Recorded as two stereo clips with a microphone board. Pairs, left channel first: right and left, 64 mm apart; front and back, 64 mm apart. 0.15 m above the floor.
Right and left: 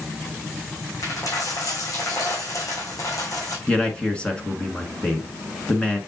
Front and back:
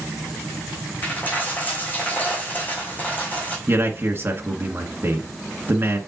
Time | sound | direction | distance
1.0 | a dropped coin | 65° right | 3 m
3.7 | a man speaking | 155° right | 1.5 m